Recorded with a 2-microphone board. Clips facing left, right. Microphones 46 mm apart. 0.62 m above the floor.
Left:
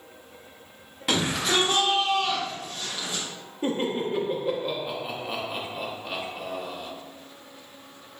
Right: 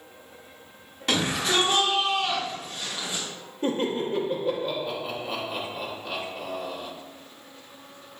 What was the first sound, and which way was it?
A shout, 5° left (ahead or behind).